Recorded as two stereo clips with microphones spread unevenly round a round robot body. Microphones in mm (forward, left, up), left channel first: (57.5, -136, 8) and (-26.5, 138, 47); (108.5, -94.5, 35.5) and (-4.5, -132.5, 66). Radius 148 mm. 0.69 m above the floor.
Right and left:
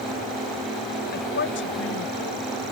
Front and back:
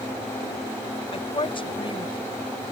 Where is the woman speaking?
20° right; by 2.3 s 30° right.